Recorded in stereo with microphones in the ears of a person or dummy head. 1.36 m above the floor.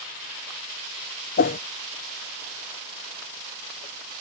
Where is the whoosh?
40° left (ahead or behind).